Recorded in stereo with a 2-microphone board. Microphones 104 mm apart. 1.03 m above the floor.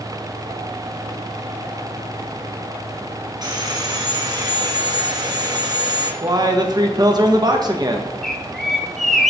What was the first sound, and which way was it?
Sawing, 40° right (ahead or behind).